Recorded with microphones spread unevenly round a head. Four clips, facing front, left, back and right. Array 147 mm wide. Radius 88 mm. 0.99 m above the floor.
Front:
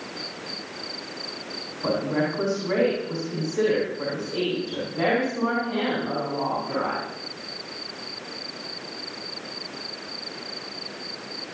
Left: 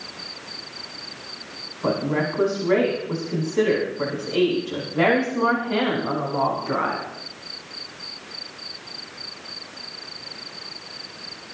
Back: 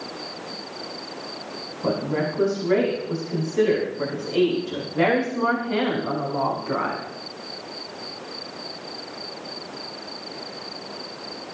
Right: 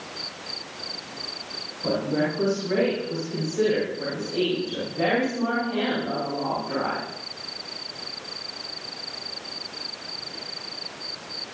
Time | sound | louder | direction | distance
1.8 | a woman speaking | left 1 dB, even | 60° left | 9.5 m